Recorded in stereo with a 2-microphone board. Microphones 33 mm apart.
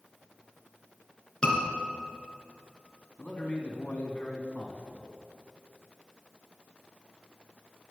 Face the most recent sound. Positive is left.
turn(degrees=45)  # may be behind; listen again after turning